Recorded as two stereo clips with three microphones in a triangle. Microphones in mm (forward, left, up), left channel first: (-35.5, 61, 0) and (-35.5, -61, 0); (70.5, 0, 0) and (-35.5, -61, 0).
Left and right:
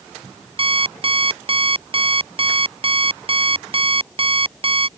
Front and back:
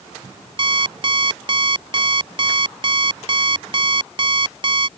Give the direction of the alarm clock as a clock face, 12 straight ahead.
4 o'clock.